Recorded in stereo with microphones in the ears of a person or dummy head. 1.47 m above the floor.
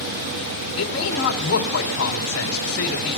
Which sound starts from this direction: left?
A man speaking, at 0.8 s.